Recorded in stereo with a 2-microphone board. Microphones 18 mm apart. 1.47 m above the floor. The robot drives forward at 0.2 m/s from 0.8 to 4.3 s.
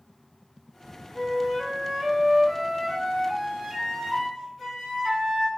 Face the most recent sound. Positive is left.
turn(degrees=-10)  # may be behind; listen again after turning